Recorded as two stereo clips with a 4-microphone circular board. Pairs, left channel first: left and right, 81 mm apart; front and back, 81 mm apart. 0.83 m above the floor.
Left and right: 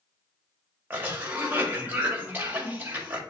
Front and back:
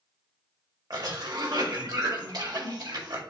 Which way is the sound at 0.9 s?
155° right.